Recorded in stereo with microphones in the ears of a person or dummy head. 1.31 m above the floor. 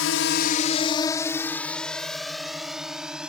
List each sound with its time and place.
0.0 s a drone: 70° left (ahead or behind); by 3.3 s 5° right (ahead or behind)